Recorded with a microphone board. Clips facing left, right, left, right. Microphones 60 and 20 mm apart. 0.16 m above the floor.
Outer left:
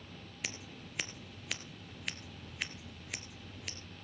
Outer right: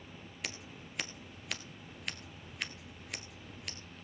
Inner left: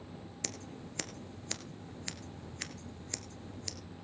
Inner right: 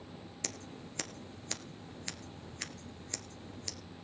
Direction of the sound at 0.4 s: Centre (ahead or behind).